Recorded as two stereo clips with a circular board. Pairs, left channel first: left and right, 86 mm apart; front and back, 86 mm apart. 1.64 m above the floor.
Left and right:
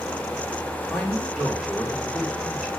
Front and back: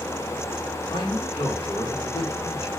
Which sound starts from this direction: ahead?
A man speaking, at 0.9 s.